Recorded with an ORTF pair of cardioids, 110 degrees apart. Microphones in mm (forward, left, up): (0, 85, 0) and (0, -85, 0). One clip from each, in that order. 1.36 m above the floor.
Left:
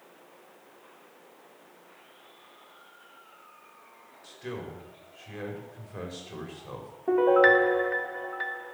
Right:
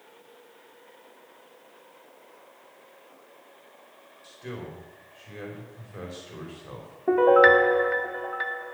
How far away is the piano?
About 1.0 m.